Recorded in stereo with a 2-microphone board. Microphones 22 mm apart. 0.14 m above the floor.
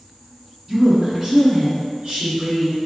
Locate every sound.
0.7 s a woman speaking: 15° right (ahead or behind), 1.1 m; by 2.8 s 55° right (ahead or behind), 1.8 m